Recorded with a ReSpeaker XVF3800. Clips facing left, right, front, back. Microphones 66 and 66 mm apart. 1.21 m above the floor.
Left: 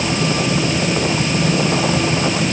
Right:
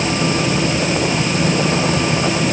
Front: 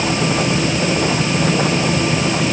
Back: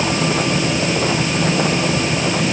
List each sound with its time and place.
Only background noise.